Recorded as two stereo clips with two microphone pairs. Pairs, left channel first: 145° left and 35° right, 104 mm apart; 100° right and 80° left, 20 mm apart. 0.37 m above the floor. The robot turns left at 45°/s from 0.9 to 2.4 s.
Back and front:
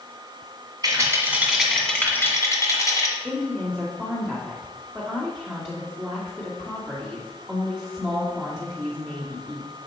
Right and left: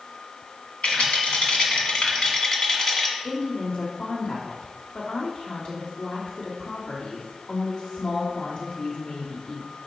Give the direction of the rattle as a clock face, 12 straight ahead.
3 o'clock.